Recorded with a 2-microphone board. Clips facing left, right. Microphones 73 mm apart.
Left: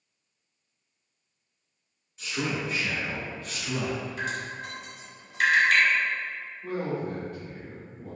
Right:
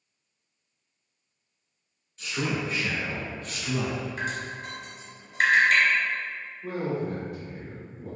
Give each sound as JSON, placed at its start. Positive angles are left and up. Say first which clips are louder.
{"t": 2.2, "sound": "a man speaking", "louder": "right 1 dB", "side_deg": 5, "distance_m": 1.4}
{"t": 4.2, "sound": "dripping", "louder": "even", "side_deg": -40, "distance_m": 0.9}
{"t": 6.6, "sound": "a man speaking", "louder": "right 1 dB", "side_deg": -10, "distance_m": 1.1}